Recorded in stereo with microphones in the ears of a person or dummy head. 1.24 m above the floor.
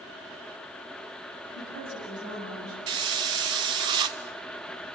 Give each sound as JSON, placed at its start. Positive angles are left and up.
{"t": 1.6, "sound": "a woman speaking", "side_deg": -60, "distance_m": 7.5}
{"t": 2.9, "sound": "a hiss", "side_deg": -30, "distance_m": 0.7}